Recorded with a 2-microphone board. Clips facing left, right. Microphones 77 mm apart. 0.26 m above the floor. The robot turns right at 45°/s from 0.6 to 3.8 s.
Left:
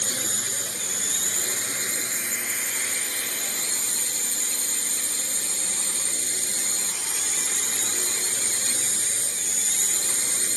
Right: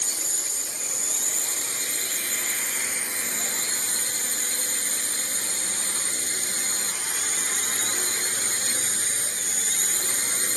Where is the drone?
85° left; by 10.6 s 130° right.